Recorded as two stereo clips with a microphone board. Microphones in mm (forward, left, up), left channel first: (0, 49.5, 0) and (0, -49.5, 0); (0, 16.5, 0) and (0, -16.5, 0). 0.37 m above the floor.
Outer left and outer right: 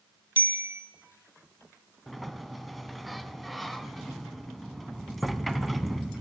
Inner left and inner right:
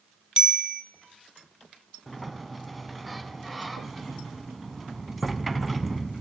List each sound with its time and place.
0.4 s a bicycle bell: 20° right (ahead or behind), 2.5 m
2.1 s a sliding door: centre (ahead or behind), 0.8 m